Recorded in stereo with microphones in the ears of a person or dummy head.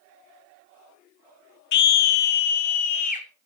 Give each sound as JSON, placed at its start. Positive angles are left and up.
{"t": 1.7, "sound": "a scream", "side_deg": 55, "distance_m": 0.6}